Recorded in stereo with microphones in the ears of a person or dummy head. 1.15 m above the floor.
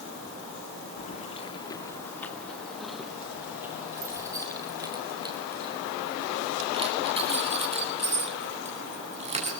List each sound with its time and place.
1.0 s keys jangling: 45° left (ahead or behind), 1.6 m; by 9.5 s 30° right (ahead or behind), 7 m